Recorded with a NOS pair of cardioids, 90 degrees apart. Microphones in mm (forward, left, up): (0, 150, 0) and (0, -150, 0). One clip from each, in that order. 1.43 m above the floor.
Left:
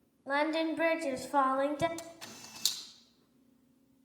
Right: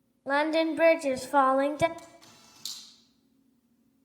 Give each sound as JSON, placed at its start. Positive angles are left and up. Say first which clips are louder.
{"t": 0.3, "sound": "singing", "louder": "right 5 dB", "azimuth_deg": -30, "distance_m": 0.7}
{"t": 2.0, "sound": "a camera shutter", "louder": "left 4 dB", "azimuth_deg": 70, "distance_m": 3.0}